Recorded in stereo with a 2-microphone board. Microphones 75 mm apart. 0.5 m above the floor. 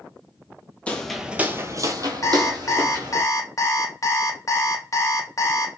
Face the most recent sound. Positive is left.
turn(degrees=45)  # may be behind; listen again after turning